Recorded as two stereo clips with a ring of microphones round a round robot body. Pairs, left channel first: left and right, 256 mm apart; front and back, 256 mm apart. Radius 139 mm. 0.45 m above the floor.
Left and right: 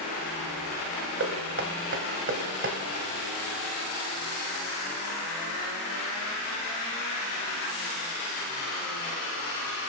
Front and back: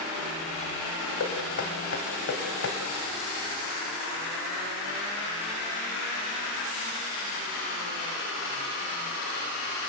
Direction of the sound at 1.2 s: 50° right.